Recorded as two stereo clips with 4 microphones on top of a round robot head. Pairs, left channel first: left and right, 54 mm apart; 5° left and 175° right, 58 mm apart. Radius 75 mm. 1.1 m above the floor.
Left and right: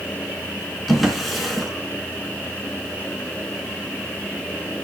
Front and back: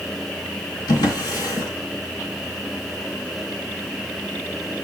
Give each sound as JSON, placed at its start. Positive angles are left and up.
{"t": 0.9, "sound": "a drawer", "azimuth_deg": 0, "distance_m": 3.5}